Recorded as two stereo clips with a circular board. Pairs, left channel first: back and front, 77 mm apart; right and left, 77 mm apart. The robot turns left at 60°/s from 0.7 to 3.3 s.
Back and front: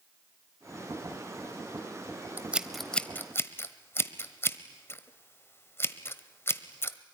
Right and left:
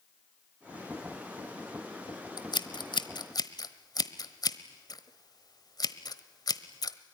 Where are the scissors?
65° right, 1.1 m; by 7.0 s 120° right, 1.1 m.